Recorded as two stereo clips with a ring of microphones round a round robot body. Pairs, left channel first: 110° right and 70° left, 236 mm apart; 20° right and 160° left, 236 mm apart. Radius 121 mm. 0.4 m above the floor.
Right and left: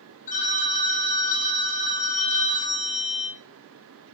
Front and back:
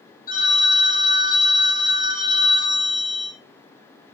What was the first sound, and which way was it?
A phone ringing, 65° right.